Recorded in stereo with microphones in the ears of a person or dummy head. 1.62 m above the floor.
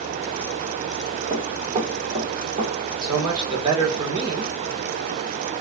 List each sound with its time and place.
1.3 s running footsteps: 20° right (ahead or behind), 3 m; by 2.7 s 40° right (ahead or behind), 2.5 m
3.0 s a man speaking: 25° right (ahead or behind), 1.8 m